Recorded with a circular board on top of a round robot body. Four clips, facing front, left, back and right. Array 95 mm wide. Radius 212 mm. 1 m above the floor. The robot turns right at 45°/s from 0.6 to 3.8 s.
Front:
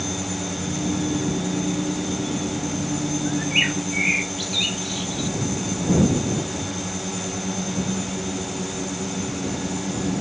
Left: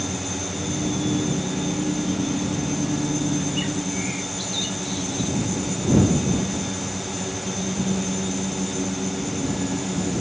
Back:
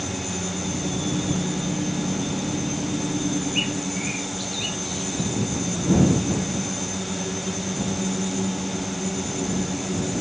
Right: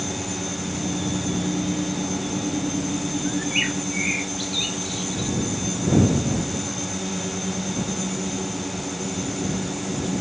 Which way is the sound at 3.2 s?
40° right.